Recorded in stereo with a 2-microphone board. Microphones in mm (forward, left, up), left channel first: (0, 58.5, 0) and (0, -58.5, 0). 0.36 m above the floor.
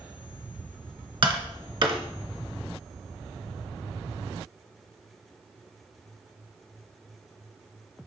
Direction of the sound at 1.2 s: 50° right (ahead or behind).